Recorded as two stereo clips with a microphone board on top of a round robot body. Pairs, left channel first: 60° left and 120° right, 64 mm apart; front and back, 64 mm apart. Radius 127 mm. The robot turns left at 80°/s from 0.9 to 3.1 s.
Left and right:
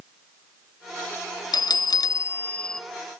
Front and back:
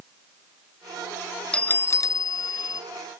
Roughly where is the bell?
Left.